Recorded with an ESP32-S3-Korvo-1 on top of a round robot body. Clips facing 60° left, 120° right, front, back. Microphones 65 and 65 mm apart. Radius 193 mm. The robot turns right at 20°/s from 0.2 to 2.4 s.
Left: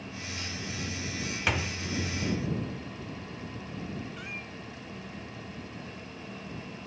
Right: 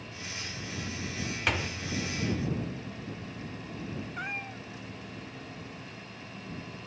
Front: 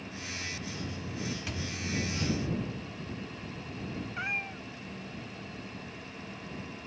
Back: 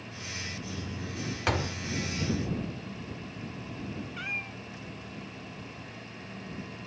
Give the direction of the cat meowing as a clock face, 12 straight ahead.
2 o'clock.